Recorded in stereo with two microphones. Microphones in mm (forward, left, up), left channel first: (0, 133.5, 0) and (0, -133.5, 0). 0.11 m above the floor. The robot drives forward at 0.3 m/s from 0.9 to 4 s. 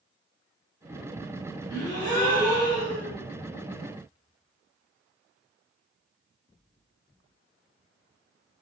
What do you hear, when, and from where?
1.7 s a gasp: 15° left (ahead or behind), 1.3 m; by 3.1 s 20° left (ahead or behind), 1.0 m